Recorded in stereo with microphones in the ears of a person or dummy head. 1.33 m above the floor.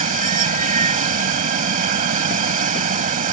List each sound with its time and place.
0.0 s running water: 35° right (ahead or behind)